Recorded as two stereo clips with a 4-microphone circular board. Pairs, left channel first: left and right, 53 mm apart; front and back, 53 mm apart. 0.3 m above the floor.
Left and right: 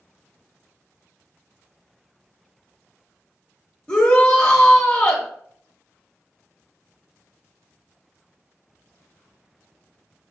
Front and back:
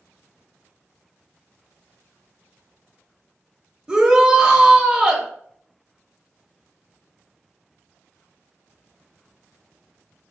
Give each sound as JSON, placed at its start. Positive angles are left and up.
{"t": 3.9, "sound": "a shout", "azimuth_deg": 140, "distance_m": 1.0}